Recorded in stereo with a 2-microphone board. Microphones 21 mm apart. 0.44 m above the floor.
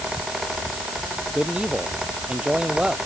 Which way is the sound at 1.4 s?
60° right (ahead or behind).